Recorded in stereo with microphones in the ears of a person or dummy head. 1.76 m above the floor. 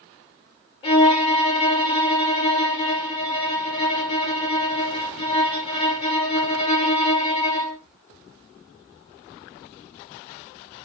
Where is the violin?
30° left (ahead or behind), 1.2 m.